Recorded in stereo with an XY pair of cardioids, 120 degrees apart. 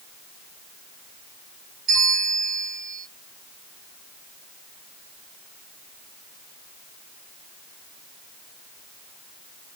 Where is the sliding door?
I don't hear a sliding door.